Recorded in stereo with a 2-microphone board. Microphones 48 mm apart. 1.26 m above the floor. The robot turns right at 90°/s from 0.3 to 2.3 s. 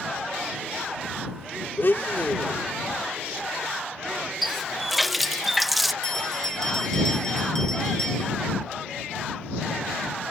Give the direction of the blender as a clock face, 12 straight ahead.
9 o'clock.